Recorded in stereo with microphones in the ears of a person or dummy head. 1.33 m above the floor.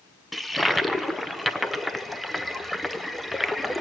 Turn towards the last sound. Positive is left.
turn(degrees=5)  # may be behind; listen again after turning